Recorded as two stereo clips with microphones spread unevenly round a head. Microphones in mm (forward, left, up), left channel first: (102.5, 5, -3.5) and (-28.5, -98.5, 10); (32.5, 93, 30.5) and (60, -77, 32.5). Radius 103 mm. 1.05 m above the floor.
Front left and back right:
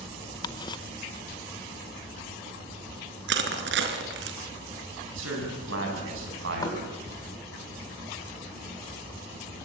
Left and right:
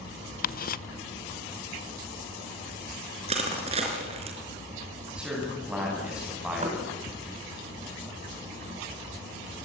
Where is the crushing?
145° right, 3.5 m.